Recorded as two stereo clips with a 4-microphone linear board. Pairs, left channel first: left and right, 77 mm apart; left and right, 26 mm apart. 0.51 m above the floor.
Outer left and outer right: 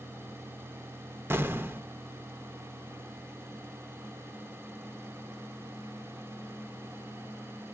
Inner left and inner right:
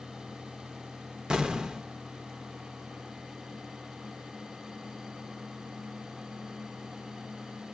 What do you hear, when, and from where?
1.3 s an explosion: 30° right (ahead or behind), 0.6 m